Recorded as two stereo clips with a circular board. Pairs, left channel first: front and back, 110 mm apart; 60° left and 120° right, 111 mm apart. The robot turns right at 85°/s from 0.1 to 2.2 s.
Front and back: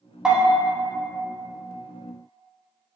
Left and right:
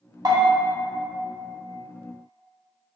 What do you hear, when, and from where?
0.2 s a bell: 100° right, 0.6 m; by 0.6 s 70° right, 0.6 m